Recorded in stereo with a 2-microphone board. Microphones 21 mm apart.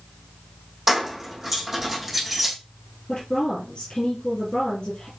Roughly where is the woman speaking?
Left.